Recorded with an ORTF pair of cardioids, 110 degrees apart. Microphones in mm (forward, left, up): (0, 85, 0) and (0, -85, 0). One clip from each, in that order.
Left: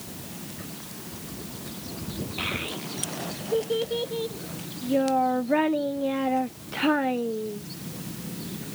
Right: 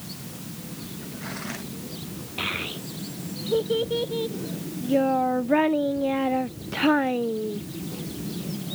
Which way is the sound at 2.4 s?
10° right.